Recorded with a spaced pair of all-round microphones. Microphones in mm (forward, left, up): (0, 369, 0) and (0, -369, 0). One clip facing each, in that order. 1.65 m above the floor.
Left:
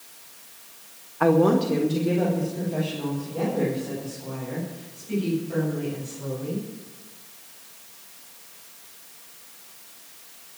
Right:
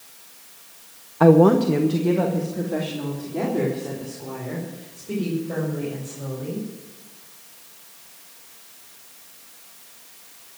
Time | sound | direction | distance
1.2 | a woman speaking | 65° right (ahead or behind) | 1.0 m